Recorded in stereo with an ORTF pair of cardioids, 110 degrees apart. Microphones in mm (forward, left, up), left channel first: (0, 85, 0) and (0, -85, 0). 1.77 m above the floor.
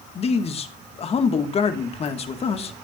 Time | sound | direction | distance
0.1 | a man speaking | 40° left | 2.0 m